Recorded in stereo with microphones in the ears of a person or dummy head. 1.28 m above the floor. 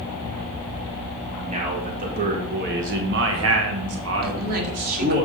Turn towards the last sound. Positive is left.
turn(degrees=-50)  # may be behind; listen again after turning